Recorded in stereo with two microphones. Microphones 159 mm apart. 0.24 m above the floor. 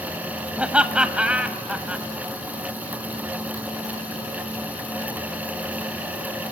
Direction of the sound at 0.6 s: 5° right (ahead or behind).